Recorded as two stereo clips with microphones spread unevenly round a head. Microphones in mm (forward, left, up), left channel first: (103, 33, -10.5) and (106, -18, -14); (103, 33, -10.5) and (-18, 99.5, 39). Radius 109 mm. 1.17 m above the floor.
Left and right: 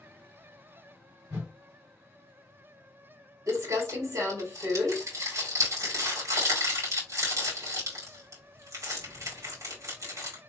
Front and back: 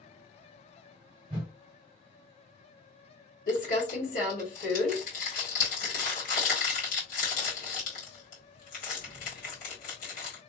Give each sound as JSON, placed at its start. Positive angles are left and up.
{"t": 1.3, "sound": "a whoosh", "azimuth_deg": -125, "distance_m": 2.5}
{"t": 3.5, "sound": "crumpling", "azimuth_deg": -75, "distance_m": 2.0}